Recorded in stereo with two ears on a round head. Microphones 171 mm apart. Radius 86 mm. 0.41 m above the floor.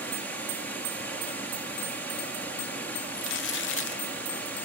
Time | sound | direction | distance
0.0 | running water | 10° left (ahead or behind) | 2 m
3.1 | crumpling | 65° left (ahead or behind) | 1.1 m